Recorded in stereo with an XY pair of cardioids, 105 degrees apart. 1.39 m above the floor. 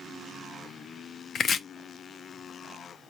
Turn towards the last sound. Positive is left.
turn(degrees=50)